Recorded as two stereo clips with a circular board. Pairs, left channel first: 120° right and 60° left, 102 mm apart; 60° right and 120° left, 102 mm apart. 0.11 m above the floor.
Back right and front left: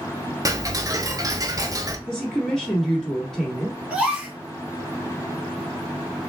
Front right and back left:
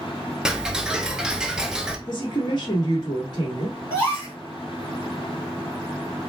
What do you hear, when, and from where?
0.5 s ticking: 40° left, 0.7 m
2.1 s a woman speaking: 40° right, 1.6 m
3.9 s a gasp: 10° right, 1.6 m